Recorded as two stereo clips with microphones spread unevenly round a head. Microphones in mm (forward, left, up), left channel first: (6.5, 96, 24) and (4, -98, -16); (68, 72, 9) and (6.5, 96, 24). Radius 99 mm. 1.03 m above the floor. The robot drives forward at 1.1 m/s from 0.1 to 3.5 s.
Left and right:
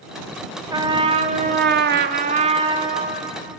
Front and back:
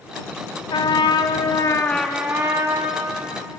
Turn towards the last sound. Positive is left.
turn(degrees=-170)